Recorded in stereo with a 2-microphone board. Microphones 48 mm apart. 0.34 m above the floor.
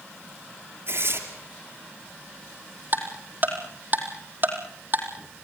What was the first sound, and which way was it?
Tearing paper, 60° right (ahead or behind).